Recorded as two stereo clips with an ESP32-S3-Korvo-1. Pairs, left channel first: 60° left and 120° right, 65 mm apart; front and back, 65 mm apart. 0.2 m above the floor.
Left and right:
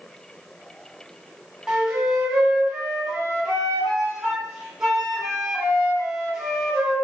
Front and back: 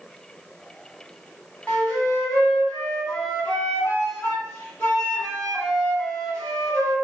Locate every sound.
1.7 s a flute: 40° right, 1.6 m